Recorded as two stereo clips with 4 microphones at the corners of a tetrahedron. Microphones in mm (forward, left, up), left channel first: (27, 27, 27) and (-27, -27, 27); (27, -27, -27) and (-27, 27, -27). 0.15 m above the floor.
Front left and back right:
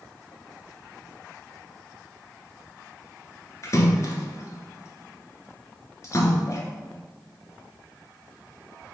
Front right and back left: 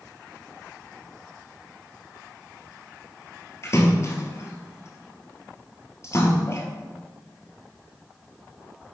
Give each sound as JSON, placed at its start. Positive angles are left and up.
{"t": 3.6, "sound": "a splash", "azimuth_deg": 0, "distance_m": 1.5}